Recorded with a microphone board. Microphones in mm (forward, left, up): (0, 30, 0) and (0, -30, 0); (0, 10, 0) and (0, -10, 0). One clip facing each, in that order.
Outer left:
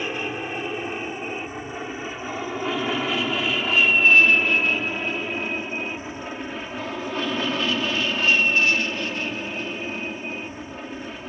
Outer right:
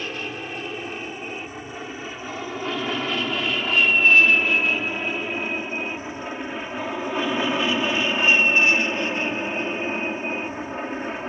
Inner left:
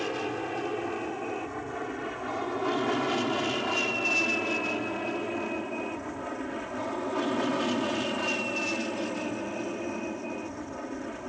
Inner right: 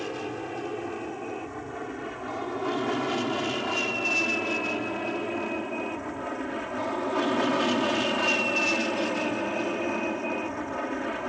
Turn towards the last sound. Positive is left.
turn(degrees=-35)  # may be behind; listen again after turning